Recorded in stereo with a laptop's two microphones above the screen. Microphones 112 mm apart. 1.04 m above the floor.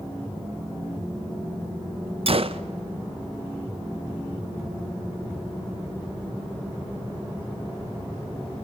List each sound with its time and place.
2.3 s a gunshot: 55° right (ahead or behind), 0.7 m